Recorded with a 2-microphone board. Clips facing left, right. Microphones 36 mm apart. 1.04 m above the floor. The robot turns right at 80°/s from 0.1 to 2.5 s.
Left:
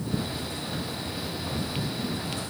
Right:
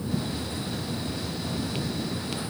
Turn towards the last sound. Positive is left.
No sound to turn to.